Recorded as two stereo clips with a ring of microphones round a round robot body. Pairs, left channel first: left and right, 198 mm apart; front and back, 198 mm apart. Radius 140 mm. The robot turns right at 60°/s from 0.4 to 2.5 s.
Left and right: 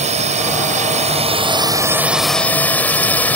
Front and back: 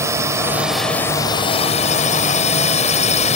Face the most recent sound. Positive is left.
turn(degrees=15)